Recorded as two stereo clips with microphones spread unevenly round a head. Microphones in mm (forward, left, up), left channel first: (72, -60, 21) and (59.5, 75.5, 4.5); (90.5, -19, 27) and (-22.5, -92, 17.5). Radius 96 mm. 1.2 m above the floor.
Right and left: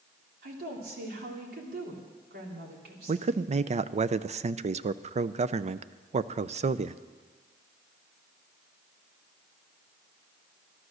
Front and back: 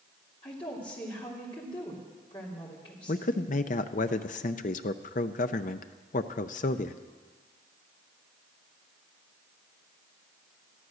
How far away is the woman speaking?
About 3 m.